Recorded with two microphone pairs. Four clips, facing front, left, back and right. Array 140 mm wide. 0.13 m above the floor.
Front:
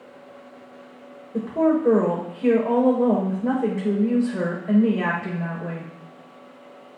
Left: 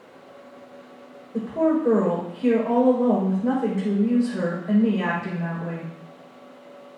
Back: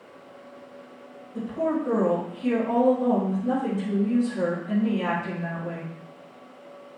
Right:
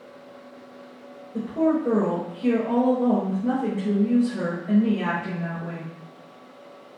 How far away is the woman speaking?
About 6 m.